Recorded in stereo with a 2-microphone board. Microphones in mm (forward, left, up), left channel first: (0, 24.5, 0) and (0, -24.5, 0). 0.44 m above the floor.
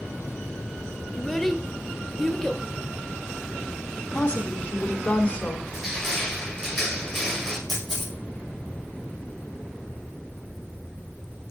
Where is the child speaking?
5° left (ahead or behind), 0.6 m.